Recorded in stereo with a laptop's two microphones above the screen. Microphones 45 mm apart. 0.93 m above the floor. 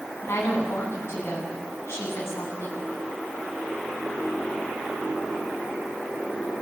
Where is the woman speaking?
85° left, 9.5 m.